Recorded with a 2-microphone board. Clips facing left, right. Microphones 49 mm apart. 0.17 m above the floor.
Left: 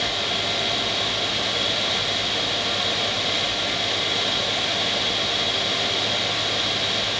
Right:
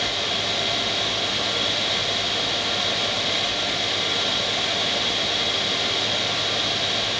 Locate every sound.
Only background noise.